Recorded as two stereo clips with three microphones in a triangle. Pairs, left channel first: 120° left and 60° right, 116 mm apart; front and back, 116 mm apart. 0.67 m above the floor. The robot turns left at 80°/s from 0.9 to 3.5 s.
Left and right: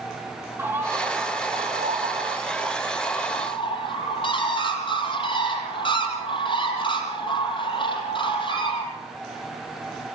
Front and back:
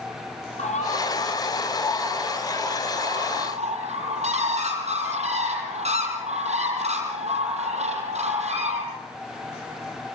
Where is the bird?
10° left, 7 m; by 8.8 s 160° left, 7 m.